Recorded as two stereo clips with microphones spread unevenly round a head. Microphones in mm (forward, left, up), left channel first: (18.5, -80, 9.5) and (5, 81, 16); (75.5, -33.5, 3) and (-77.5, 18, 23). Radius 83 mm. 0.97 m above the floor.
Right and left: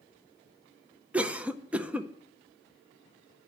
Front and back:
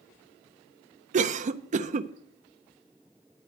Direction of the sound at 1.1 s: 175° left.